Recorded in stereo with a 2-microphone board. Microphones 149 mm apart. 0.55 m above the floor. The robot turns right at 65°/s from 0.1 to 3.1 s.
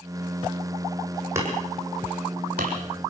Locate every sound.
1.4 s hammering: 20° right (ahead or behind), 7.5 m; by 2.8 s 70° right (ahead or behind), 7.5 m